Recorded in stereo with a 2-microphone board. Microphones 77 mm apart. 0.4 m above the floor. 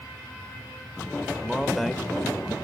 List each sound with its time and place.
1.4 s a man speaking: centre (ahead or behind), 1.0 m